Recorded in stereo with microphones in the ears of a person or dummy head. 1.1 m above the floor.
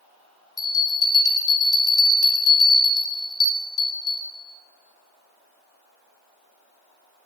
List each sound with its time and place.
0.6 s a bell: 20° left (ahead or behind), 3.5 m